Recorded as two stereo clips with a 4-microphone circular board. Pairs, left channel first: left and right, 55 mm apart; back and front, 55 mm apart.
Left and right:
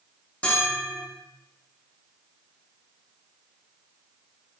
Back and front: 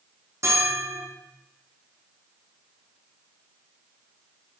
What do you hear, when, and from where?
0.4 s a bell: 25° left, 5.5 m